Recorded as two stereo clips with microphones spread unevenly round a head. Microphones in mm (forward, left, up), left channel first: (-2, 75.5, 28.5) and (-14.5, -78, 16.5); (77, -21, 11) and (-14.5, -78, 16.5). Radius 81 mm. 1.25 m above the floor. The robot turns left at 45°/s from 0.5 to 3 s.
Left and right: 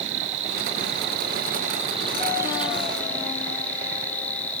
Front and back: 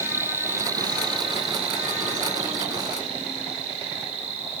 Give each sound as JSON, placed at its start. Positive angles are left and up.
{"t": 0.0, "sound": "an insect", "azimuth_deg": -85, "distance_m": 1.5}